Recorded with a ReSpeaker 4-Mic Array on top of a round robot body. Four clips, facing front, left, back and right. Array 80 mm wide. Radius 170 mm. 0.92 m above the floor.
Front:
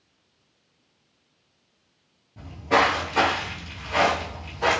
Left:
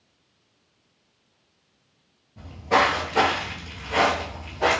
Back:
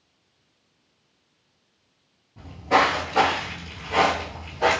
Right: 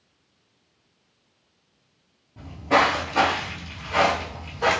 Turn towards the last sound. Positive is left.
turn(degrees=120)